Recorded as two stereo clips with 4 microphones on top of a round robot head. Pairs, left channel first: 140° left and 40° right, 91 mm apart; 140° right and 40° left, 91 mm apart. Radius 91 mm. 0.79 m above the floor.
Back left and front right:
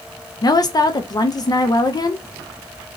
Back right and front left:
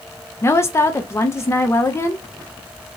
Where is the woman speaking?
165° left, 0.5 m.